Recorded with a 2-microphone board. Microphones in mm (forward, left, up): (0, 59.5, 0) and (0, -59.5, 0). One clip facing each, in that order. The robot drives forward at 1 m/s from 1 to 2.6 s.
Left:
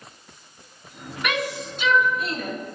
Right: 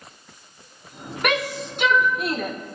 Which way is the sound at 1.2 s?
55° right (ahead or behind).